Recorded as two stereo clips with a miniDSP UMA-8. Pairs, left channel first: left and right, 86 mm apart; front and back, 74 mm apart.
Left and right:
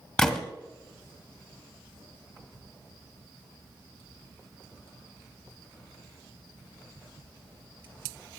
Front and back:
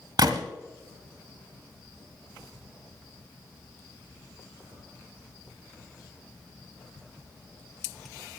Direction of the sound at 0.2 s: 170° left.